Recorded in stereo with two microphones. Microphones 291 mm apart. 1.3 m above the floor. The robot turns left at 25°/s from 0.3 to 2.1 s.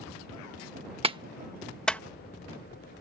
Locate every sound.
1.0 s a clap: 20° right (ahead or behind); by 2.0 s 5° left (ahead or behind)